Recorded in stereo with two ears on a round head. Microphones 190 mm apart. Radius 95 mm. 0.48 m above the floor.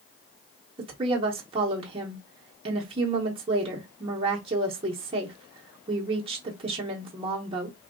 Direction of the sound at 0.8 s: 25° right (ahead or behind).